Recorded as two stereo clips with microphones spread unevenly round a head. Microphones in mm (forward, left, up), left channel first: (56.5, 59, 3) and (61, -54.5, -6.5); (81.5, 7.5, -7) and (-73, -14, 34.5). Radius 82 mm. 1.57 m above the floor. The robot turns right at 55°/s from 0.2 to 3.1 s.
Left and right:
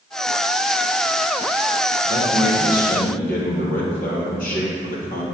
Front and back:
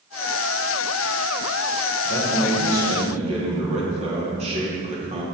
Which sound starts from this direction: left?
A man speaking, at 2.0 s.